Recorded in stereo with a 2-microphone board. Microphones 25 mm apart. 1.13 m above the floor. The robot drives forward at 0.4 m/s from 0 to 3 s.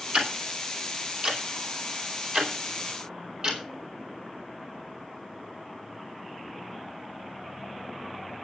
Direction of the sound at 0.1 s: 50° right (ahead or behind).